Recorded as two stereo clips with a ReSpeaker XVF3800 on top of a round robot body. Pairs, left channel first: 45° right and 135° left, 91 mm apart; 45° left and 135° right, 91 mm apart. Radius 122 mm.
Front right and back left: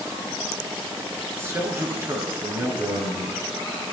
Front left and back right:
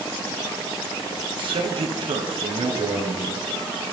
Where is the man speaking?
160° right, 8 m.